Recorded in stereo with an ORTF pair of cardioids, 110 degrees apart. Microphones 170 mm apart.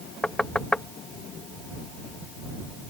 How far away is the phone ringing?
I don't hear a phone ringing.